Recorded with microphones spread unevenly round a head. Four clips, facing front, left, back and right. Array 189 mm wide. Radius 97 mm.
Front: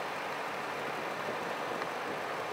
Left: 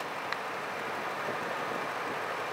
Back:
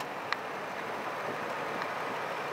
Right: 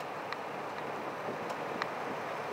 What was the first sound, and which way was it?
Only background noise.